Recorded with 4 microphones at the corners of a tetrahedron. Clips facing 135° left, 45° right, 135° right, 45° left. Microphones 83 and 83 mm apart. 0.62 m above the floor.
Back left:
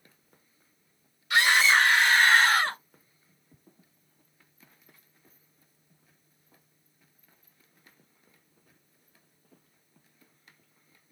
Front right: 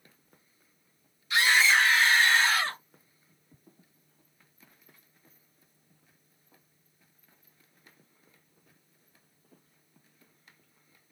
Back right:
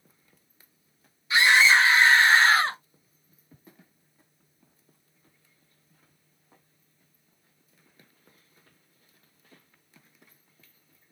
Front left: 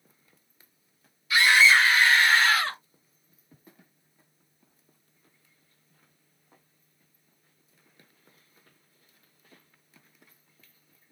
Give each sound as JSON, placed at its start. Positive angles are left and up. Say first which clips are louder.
{"t": 1.3, "sound": "a scream", "louder": "back left 1 dB, even", "azimuth_deg": 160, "distance_m": 2.0}